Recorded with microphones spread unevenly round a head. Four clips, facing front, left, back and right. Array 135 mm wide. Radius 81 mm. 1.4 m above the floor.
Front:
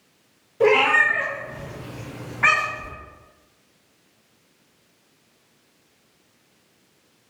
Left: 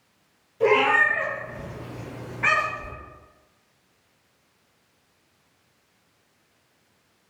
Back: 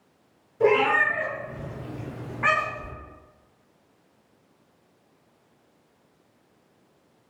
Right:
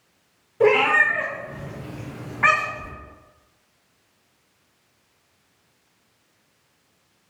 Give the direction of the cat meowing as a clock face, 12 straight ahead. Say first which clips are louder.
Right 2 dB, front 3 dB; 2 o'clock.